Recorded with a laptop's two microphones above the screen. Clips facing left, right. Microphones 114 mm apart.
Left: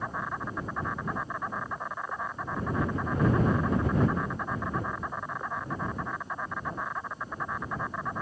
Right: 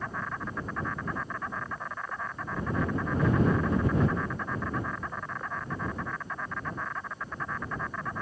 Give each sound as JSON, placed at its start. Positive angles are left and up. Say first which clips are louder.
{"t": 0.0, "sound": "an insect", "louder": "left 1 dB", "side_deg": 15}